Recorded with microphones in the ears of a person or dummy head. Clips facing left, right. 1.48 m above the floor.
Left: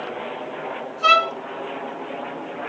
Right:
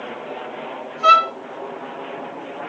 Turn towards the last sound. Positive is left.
turn(degrees=70)  # may be behind; listen again after turning